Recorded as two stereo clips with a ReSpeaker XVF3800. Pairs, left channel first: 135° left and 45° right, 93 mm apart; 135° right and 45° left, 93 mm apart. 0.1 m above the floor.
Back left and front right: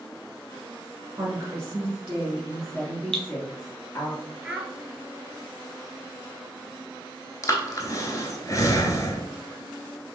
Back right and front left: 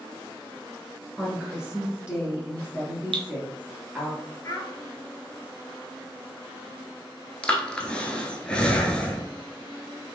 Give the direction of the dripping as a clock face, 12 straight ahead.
10 o'clock.